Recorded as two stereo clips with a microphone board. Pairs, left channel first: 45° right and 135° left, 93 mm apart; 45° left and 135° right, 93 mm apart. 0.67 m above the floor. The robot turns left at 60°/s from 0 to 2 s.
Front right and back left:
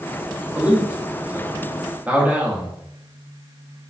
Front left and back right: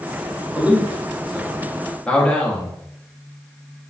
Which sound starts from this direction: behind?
A man speaking, at 0.6 s.